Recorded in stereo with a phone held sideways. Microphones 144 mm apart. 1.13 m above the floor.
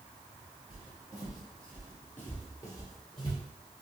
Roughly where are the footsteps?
Centre.